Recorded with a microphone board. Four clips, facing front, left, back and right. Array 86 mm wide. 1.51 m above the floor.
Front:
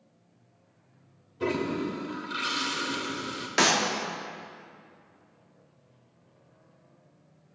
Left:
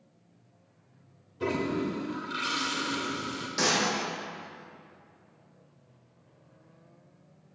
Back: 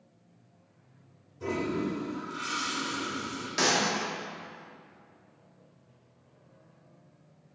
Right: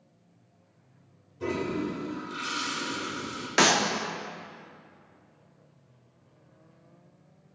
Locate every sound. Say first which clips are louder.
1.4 s a toilet flushing: left 1 dB, front 2 dB; 30° left, 0.9 m
3.6 s a clap: right 5 dB, front 3 dB; 60° right, 0.7 m